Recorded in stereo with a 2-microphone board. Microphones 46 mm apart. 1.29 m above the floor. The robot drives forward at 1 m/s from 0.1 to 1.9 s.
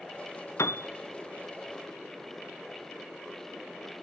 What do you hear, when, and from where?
0.6 s a piano: 70° left (ahead or behind), 0.7 m; by 0.9 s 55° left (ahead or behind), 0.8 m